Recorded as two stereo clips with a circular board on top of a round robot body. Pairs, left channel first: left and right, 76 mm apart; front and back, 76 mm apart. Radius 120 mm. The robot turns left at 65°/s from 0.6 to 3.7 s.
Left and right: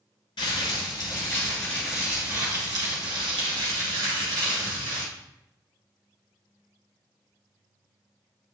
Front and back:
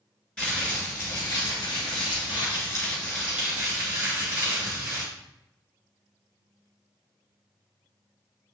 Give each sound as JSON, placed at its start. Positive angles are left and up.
{"t": 0.4, "sound": "crumpling", "azimuth_deg": 75, "distance_m": 2.5}